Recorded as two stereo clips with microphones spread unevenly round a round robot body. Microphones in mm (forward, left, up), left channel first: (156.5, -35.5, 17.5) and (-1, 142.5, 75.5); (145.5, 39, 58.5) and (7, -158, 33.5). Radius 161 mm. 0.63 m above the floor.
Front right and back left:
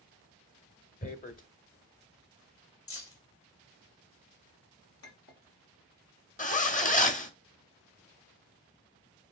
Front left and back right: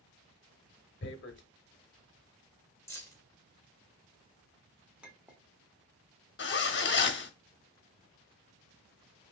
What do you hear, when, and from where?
1.0 s tearing paper: 10° left, 0.8 m
2.9 s keys jangling: 25° right, 2 m
5.0 s a clink: 40° right, 1.2 m
6.4 s a zipper: 10° left, 0.9 m